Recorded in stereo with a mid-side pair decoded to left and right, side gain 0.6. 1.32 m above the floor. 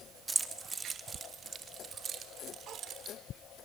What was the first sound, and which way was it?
Keys jangling, 15° right.